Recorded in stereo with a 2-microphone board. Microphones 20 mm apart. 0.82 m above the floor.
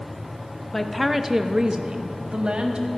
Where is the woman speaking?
10° left (ahead or behind), 0.9 m; by 2.9 s 65° right (ahead or behind), 1.6 m.